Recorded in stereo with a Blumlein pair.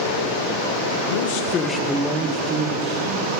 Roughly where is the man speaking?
Ahead left.